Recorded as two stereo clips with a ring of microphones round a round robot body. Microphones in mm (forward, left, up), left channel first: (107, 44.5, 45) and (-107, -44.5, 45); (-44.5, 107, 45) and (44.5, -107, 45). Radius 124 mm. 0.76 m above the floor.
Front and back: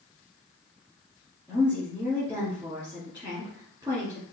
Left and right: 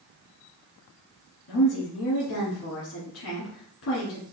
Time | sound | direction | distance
1.5 | a woman speaking | 120° left | 1.9 m